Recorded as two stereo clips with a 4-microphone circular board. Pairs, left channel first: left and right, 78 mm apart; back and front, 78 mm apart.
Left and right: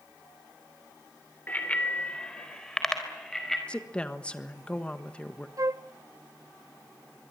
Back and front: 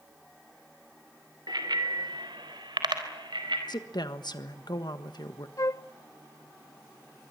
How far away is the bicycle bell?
About 3 m.